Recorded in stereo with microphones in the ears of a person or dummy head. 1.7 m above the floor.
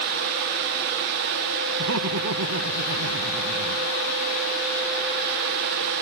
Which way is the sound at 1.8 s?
85° right.